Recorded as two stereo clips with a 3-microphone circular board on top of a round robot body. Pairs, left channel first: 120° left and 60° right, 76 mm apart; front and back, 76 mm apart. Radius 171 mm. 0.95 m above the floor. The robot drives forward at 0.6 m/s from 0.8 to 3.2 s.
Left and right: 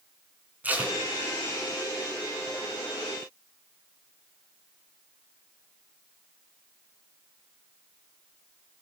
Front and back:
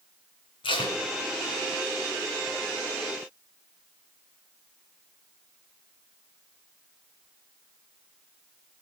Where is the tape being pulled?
10° left, 3 m.